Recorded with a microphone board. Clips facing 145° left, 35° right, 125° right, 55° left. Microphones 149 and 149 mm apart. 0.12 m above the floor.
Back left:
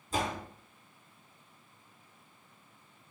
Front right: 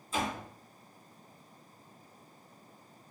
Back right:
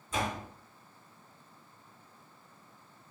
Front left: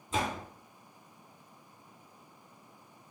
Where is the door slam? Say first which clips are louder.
Back left 1 dB, front left 1 dB; 110° left, 1.6 m.